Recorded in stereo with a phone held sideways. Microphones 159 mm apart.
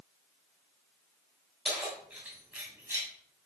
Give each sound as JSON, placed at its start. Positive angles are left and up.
{"t": 1.6, "sound": "keys jangling", "side_deg": -5, "distance_m": 6.0}